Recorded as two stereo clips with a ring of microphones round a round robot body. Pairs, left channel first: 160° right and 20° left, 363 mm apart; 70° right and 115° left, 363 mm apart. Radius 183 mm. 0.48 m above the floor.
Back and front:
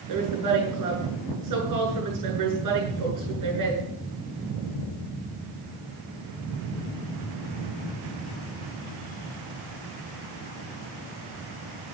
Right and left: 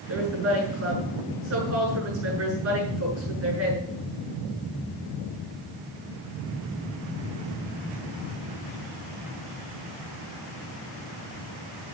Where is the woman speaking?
60° left, 8 m.